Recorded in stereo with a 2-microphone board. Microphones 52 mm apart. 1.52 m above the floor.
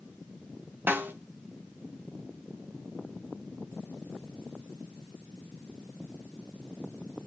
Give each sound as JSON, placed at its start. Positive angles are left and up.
{"t": 0.9, "sound": "a snare drum", "side_deg": -40, "distance_m": 1.1}